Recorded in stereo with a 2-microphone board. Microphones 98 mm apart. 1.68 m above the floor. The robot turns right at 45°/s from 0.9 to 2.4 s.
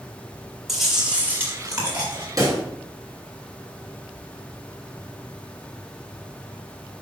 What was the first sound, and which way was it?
Chewing, straight behind.